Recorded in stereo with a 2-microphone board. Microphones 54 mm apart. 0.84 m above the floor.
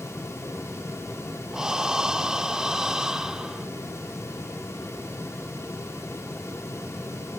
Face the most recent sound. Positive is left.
turn(degrees=-10)  # may be behind; listen again after turning